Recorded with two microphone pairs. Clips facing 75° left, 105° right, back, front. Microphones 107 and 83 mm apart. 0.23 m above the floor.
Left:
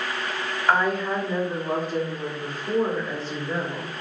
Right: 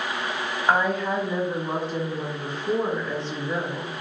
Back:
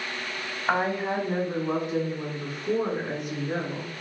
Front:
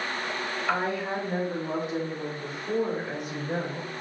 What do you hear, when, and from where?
0.7 s a woman speaking: 165° right, 1.3 m